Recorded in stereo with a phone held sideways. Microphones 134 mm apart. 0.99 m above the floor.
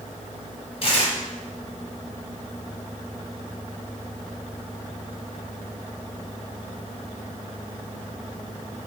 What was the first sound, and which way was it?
Tearing paper, 45° left (ahead or behind).